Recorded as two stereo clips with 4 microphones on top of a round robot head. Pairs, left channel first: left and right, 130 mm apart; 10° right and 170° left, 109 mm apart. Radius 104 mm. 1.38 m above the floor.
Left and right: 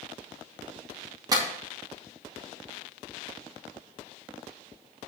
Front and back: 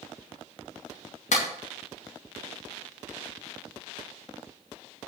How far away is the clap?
About 2.5 m.